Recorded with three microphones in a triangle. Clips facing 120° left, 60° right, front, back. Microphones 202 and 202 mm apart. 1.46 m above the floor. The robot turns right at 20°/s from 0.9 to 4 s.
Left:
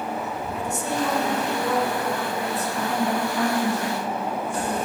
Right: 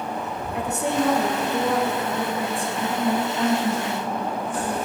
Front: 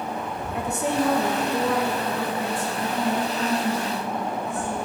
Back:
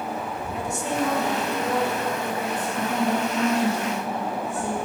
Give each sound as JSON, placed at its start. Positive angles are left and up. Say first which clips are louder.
{"t": 0.5, "sound": "a woman speaking", "louder": "right 4 dB, front 3 dB", "azimuth_deg": -35, "distance_m": 1.2}
{"t": 2.8, "sound": "a woman speaking", "louder": "right 2 dB, back 2 dB", "azimuth_deg": 175, "distance_m": 1.9}